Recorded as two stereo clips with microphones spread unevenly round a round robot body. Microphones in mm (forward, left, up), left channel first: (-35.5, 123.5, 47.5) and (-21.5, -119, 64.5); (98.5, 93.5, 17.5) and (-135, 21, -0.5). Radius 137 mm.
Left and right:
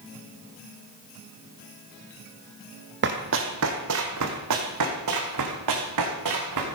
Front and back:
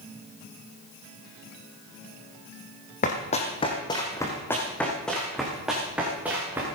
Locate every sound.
3.0 s running footsteps: 40° right, 2 m; by 6.7 s 80° right, 4.5 m